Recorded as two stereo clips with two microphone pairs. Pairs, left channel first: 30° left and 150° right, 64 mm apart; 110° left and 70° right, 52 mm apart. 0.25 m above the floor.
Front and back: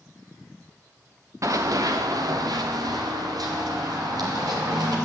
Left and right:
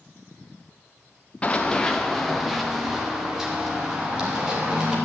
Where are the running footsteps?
175° left, 1.2 m; by 5.0 s 145° right, 4.5 m.